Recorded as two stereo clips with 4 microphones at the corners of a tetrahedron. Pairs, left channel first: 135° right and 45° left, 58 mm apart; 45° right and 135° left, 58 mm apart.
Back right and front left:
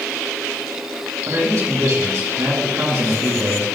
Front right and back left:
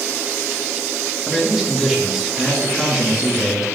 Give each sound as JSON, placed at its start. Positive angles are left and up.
{"t": 1.3, "sound": "a man speaking", "azimuth_deg": 50, "distance_m": 3.0}